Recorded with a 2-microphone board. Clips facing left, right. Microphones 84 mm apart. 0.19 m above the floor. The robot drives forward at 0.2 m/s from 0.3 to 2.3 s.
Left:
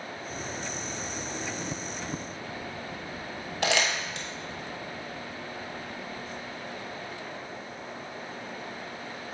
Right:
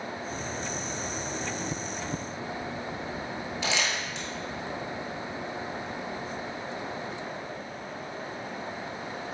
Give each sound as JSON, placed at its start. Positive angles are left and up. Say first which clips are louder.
{"t": 3.6, "sound": "crumpling", "louder": "left 4 dB", "side_deg": 65, "distance_m": 0.9}